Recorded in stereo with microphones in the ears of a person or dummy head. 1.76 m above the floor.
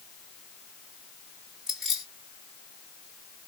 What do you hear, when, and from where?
1.7 s keys jangling: 5° right (ahead or behind), 1.3 m